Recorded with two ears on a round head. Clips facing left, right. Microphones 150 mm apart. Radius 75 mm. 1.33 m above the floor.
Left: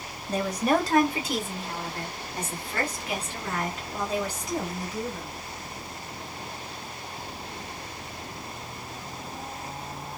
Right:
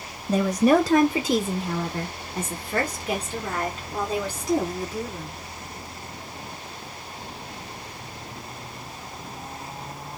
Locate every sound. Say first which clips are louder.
0.3 s a woman speaking: right 6 dB; 75° right (ahead or behind), 0.6 m; by 5.3 s 25° right (ahead or behind), 2.5 m